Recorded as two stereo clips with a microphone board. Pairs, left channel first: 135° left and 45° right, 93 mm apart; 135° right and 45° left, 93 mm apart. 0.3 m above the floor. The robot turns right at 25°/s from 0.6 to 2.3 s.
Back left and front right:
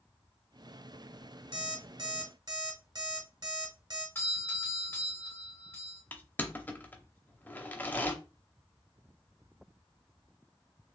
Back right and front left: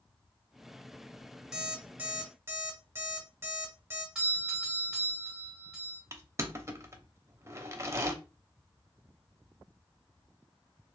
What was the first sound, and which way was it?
An alarm clock, 35° right.